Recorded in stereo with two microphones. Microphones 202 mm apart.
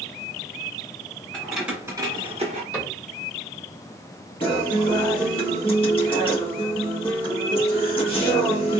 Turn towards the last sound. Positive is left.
turn(degrees=25)  # may be behind; listen again after turning